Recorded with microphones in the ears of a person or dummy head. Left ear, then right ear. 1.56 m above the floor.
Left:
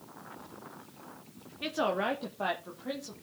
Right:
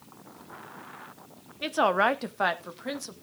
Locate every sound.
1.6 s a woman speaking: 15° right (ahead or behind), 0.8 m; by 3.1 s 75° right (ahead or behind), 2 m